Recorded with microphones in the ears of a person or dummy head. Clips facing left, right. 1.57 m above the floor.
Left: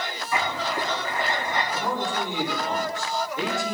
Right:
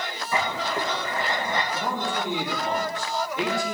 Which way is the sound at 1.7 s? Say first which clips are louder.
Left 1 dB; 20° right (ahead or behind).